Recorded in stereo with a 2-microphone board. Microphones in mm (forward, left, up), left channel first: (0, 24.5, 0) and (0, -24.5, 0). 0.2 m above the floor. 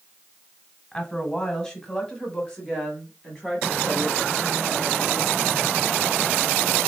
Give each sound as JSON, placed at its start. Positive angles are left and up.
{"t": 0.9, "sound": "a woman speaking", "side_deg": 15, "distance_m": 1.2}